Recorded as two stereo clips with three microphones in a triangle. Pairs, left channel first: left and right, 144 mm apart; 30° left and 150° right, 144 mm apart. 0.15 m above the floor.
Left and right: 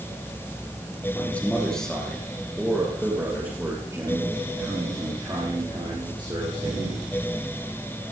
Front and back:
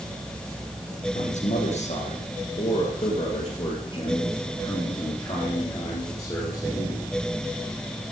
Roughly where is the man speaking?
Ahead.